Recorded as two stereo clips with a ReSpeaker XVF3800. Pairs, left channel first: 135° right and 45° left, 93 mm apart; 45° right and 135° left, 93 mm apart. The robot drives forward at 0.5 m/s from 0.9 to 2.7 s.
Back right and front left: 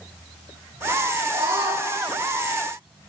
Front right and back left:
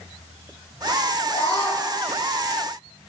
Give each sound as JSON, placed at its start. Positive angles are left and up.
{"t": 1.3, "sound": "a scream", "azimuth_deg": 5, "distance_m": 9.5}